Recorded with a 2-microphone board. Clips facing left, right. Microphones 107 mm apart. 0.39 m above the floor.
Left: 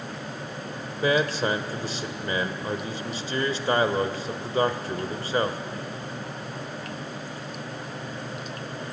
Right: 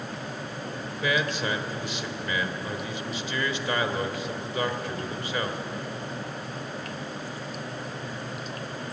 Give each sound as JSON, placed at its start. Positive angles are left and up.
{"t": 0.9, "sound": "a man speaking", "side_deg": 35, "distance_m": 1.4}